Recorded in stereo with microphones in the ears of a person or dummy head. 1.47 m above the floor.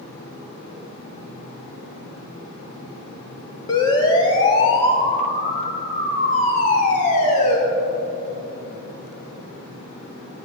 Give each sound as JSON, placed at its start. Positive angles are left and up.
{"t": 3.7, "sound": "a siren", "side_deg": 25, "distance_m": 2.5}